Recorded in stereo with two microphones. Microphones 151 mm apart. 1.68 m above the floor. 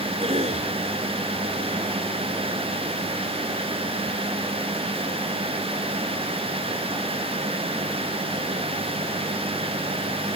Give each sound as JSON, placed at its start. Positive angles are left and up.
{"t": 0.2, "sound": "a cough", "side_deg": -45}